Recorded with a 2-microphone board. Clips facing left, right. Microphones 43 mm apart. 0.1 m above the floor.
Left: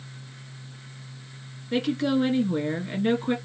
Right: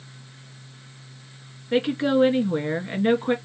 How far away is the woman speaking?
About 1.5 m.